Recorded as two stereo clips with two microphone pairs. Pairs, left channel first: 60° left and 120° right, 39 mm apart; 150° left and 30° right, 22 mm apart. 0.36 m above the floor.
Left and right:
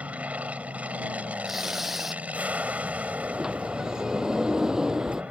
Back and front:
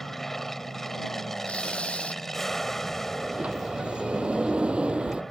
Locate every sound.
0.0 s an aircraft: 140° right
1.4 s tearing paper: 160° left
3.2 s a sliding door: 40° right